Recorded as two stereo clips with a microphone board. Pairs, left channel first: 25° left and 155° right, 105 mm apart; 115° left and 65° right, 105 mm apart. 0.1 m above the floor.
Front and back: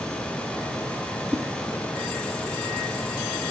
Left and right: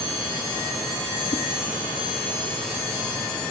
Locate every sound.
1.3 s a whoosh: 120° left, 1.5 m